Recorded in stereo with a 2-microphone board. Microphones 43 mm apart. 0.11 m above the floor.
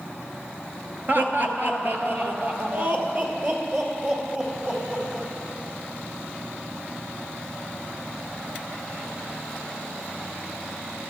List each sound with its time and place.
1.1 s laughter: 45° right (ahead or behind), 1.5 m; by 5.3 s 30° right (ahead or behind), 4.5 m